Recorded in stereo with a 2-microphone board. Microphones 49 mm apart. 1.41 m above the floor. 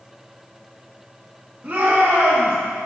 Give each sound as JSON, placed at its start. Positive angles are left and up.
{"t": 1.6, "sound": "a shout", "side_deg": -40, "distance_m": 1.9}